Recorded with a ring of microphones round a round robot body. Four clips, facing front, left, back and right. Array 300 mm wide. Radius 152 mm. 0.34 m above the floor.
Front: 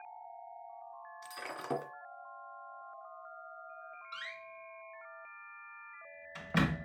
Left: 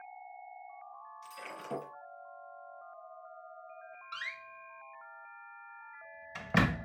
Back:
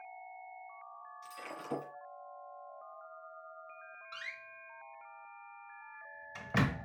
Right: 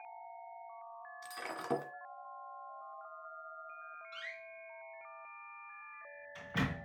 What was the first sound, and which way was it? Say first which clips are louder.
Breaking glass: right 4 dB, front 4 dB; 45° right.